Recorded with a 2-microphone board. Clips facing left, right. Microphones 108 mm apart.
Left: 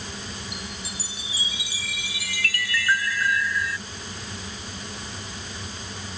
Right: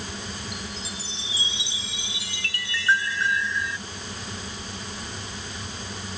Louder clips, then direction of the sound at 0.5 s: Right 1 dB; 25° right (ahead or behind).